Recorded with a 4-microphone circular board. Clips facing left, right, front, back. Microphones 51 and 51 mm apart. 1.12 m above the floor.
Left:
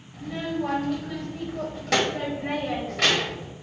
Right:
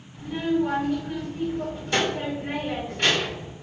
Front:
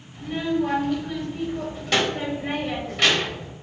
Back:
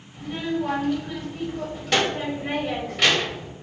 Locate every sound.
0.1 s a child speaking: 95° left, 1.6 m